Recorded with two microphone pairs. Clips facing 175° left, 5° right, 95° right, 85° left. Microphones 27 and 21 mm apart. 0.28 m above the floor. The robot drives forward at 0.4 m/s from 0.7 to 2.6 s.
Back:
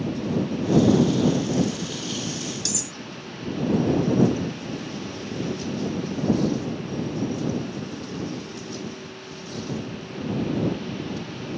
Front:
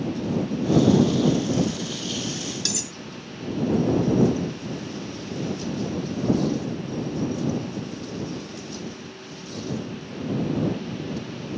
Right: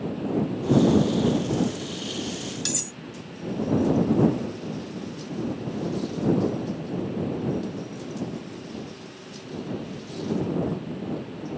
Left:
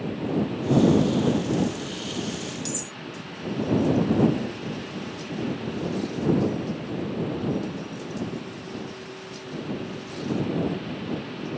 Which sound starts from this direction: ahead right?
Cutlery clinking, at 2.6 s.